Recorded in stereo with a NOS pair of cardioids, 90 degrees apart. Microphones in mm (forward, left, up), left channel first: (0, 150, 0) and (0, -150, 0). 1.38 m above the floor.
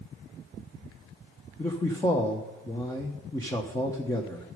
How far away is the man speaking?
About 1.1 m.